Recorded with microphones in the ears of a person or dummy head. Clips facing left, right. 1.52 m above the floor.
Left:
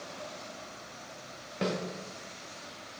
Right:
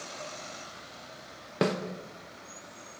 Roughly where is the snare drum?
Right.